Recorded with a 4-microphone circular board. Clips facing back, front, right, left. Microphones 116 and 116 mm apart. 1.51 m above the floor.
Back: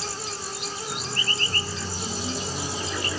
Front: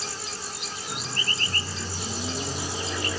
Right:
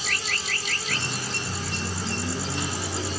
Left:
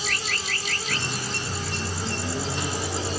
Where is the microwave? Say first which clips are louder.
Back 2 dB, left 1 dB; 85° left, 2.5 m.